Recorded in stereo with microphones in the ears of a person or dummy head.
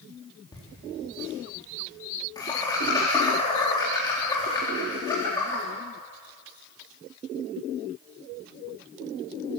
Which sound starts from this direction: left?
Laughter, at 0.5 s.